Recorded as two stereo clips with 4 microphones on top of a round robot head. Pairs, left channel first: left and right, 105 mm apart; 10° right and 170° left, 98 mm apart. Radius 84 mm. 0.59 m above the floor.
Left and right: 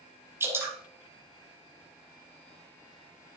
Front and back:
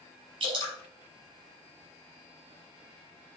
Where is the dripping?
155° right, 5 m.